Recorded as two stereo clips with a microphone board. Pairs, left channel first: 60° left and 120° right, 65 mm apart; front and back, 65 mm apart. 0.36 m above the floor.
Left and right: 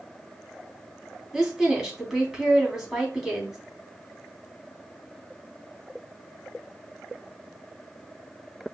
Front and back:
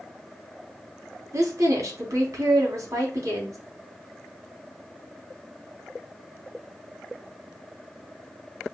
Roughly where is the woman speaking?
Behind left.